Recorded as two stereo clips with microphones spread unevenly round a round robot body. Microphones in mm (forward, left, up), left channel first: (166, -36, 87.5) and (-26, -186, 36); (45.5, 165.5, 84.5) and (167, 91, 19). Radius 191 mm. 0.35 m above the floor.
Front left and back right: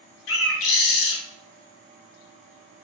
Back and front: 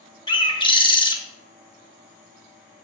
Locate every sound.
0.3 s a bird: 75° left, 0.8 m